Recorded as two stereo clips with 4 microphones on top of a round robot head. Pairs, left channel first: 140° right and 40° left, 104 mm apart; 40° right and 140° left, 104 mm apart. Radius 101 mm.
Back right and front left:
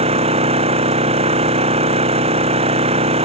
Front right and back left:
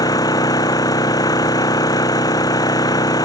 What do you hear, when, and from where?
0.0 s an engine running: 15° left